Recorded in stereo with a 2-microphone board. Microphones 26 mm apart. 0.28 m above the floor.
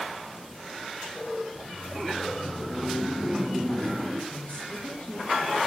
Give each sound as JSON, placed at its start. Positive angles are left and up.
{"t": 1.6, "sound": "laughter", "side_deg": -10, "distance_m": 1.0}
{"t": 4.3, "sound": "a woman speaking", "side_deg": 40, "distance_m": 4.5}